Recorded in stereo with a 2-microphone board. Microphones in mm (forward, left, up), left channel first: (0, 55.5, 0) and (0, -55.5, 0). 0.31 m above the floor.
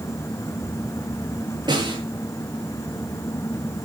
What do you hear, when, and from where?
1.7 s a snare drum: 40° right (ahead or behind), 6 m